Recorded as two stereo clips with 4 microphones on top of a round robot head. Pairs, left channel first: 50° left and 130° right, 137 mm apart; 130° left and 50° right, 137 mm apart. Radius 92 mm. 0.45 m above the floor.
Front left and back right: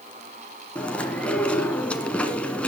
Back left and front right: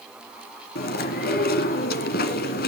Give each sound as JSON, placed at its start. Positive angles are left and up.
{"t": 0.8, "sound": "chewing", "azimuth_deg": 130, "distance_m": 1.8}